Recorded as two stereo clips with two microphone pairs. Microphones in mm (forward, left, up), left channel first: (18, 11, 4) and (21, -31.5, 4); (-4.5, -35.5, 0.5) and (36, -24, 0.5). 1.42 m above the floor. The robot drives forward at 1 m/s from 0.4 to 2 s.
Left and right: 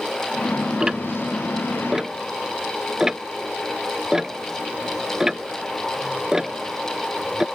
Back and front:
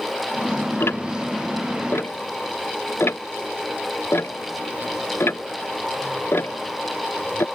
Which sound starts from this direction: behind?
Ticking, at 0.8 s.